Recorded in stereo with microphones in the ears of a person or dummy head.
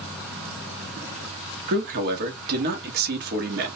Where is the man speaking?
55° right (ahead or behind), 1.0 m.